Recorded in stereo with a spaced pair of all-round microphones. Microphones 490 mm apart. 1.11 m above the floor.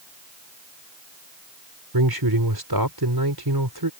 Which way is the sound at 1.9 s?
45° right (ahead or behind).